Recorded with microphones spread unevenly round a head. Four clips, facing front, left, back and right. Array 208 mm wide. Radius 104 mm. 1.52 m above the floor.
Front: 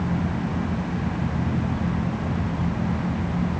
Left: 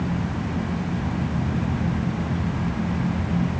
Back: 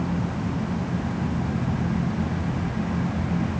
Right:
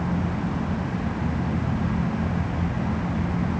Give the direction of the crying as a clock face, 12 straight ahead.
No crying in this recording.